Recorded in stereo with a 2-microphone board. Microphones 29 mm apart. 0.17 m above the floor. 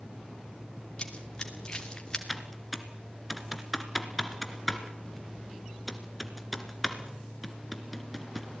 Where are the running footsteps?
30° left (ahead or behind), 4 m; by 2.2 s 25° left (ahead or behind), 3.5 m.